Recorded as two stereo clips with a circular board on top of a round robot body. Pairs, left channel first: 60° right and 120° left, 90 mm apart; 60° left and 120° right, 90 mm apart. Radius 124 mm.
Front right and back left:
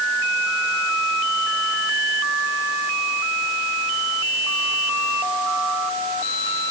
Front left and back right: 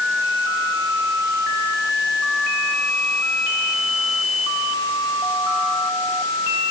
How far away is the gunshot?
No gunshot in this recording.